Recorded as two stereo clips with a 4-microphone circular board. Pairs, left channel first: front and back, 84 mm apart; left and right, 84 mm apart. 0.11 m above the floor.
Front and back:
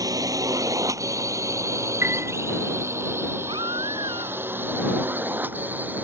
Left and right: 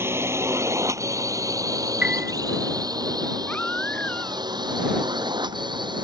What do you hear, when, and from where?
0.0 s a drone: 145° right; by 6.0 s 110° right
2.0 s a piano: 155° right
3.5 s a baby crying: 165° left